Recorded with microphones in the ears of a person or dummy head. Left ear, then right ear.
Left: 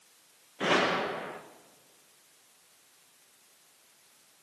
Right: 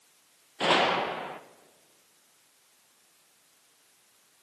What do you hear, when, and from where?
0.6 s a gunshot: 15° right (ahead or behind), 0.7 m